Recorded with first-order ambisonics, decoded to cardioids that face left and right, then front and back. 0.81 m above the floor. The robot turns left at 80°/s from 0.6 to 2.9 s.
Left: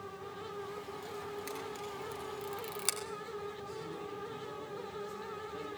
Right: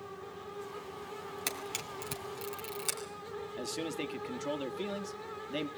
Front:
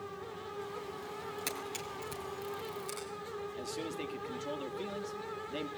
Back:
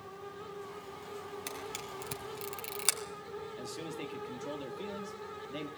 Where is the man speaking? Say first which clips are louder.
Right 5 dB, front 2 dB; 80° right, 1.4 m.